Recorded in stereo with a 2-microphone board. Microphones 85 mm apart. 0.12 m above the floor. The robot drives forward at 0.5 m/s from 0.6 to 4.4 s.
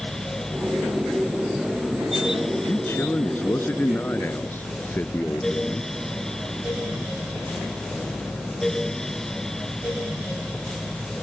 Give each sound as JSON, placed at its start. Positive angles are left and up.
{"t": 2.6, "sound": "a man speaking", "side_deg": 25}